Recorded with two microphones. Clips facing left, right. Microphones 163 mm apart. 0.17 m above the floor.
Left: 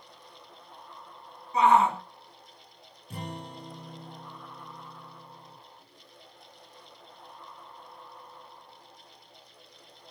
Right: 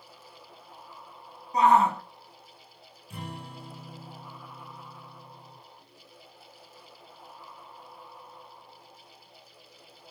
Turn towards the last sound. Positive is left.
turn(degrees=40)  # may be behind; listen again after turning